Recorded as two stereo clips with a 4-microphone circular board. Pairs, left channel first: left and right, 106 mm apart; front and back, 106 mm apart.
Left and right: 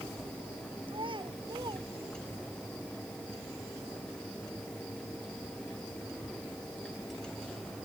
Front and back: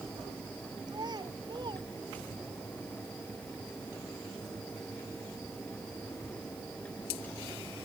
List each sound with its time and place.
0.9 s a child speaking: 130° right; by 2.6 s 140° right